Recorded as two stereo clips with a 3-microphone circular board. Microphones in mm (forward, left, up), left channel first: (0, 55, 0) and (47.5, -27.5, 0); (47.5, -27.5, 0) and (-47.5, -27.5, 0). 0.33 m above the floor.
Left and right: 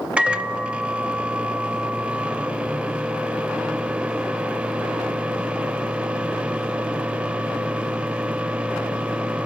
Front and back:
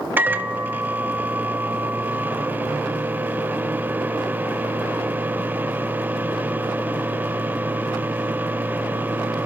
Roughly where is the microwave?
Behind right.